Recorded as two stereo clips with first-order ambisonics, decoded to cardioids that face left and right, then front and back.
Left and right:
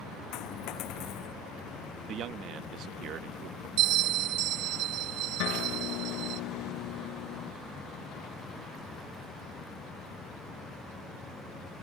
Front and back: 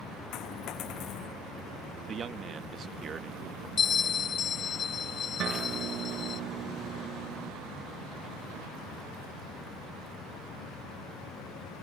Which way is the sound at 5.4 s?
125° left.